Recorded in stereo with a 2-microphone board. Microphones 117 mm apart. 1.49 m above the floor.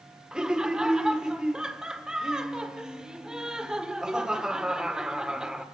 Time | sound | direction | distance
0.3 | laughter | 5° right (ahead or behind) | 1.6 m